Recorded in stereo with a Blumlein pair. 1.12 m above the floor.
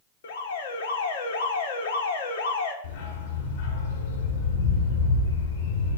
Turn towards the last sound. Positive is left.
turn(degrees=55)